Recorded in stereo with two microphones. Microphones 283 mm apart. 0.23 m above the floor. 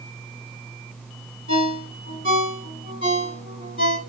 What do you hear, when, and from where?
1.5 s a ringtone: 45° left (ahead or behind), 1.4 m